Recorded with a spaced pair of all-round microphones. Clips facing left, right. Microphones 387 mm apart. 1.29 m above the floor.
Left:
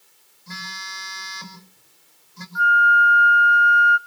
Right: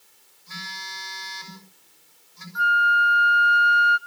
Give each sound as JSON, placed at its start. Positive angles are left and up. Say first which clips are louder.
{"t": 0.5, "sound": "a phone buzzing", "louder": "left 3 dB", "side_deg": 80, "distance_m": 6.0}
{"t": 2.5, "sound": "a flute", "louder": "left 4 dB", "side_deg": -50, "distance_m": 1.0}